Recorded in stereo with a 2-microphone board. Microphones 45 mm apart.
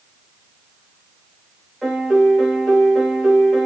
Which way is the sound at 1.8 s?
5° right (ahead or behind).